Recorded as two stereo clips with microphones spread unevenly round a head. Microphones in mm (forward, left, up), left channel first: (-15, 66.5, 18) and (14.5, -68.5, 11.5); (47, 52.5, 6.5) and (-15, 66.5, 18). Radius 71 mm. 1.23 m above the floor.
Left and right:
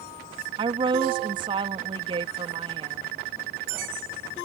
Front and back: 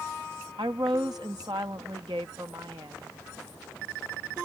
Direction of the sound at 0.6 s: 135° right.